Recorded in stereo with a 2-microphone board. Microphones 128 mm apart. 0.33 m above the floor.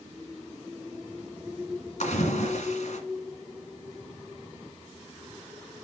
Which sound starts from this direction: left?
A splash, at 2.0 s.